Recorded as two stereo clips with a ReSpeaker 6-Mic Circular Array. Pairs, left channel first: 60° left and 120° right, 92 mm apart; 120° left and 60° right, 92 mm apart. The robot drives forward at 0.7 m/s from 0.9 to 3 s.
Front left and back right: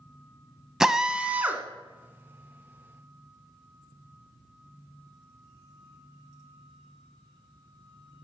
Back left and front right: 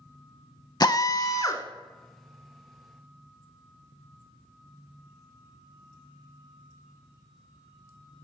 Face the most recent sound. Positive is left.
turn(degrees=175)